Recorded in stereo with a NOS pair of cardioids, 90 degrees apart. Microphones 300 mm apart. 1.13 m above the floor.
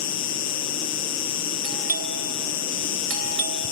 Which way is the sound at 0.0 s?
65° left.